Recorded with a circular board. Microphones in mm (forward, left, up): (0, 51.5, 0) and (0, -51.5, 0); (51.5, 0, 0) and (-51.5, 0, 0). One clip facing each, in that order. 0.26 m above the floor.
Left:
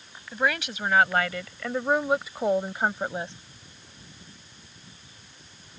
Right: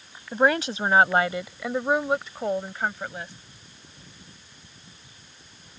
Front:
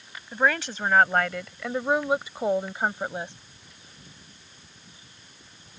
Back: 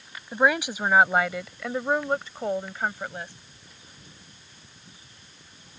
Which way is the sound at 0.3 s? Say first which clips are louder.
Right 6 dB, back 2 dB; 115° right.